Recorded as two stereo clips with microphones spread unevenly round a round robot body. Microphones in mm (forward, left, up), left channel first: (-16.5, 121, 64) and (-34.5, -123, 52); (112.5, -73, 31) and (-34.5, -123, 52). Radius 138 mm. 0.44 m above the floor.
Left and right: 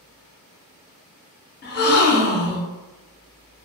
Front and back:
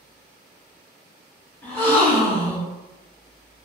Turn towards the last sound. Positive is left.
turn(degrees=80)